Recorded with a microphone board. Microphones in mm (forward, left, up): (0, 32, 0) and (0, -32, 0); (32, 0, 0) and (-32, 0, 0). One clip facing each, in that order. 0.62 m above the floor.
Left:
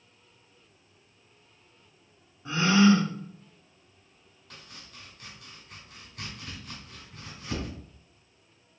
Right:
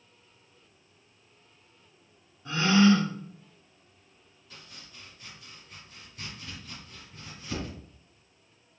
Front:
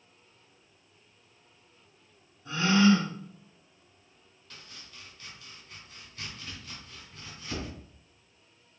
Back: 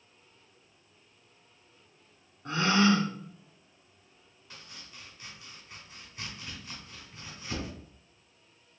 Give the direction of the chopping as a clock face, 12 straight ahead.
8 o'clock.